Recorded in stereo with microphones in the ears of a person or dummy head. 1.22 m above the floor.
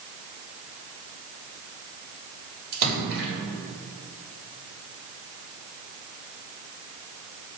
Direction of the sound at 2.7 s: 70° right (ahead or behind).